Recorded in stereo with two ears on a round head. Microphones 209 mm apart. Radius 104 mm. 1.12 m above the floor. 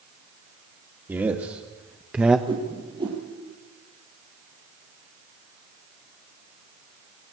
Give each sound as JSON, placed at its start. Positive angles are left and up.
{"t": 1.1, "sound": "a man speaking", "side_deg": -10, "distance_m": 2.0}
{"t": 2.5, "sound": "a whoosh", "side_deg": -20, "distance_m": 6.5}